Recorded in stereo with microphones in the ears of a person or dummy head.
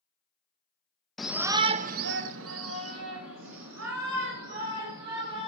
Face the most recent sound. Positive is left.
turn(degrees=-70)  # may be behind; listen again after turning